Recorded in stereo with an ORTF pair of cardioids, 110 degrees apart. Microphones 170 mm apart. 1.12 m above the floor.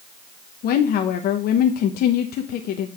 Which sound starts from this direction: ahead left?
A woman speaking, at 0.6 s.